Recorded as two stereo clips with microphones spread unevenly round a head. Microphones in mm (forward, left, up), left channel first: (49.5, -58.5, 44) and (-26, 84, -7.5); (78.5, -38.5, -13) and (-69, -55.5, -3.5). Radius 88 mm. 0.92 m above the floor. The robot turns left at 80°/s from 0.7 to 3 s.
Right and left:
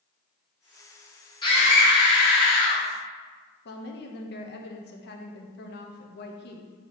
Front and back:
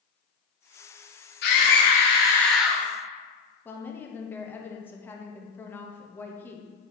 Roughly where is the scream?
Ahead.